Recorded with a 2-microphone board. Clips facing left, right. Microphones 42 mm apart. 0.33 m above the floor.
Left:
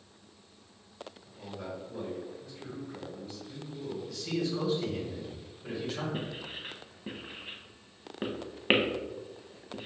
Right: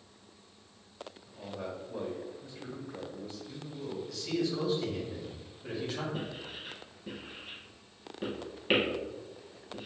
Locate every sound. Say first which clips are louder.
1.3 s a man speaking: right 1 dB; 25° right (ahead or behind), 1.5 m
4.1 s a man speaking: even; 5° right (ahead or behind), 1.5 m
6.1 s writing: left 1 dB; 40° left (ahead or behind), 0.8 m